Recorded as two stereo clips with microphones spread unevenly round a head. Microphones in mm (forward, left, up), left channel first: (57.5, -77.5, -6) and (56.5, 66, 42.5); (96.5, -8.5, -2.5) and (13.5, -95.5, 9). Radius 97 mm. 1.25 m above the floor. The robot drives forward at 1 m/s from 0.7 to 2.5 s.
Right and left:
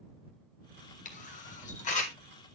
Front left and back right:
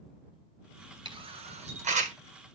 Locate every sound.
1.1 s a camera shutter: 85° right, 1.6 m; by 2.2 s 120° right, 1.8 m